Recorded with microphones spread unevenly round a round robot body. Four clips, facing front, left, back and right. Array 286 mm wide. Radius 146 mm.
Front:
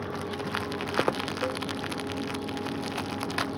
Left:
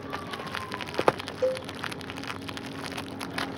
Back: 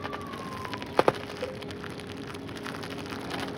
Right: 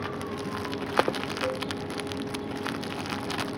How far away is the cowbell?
About 0.6 m.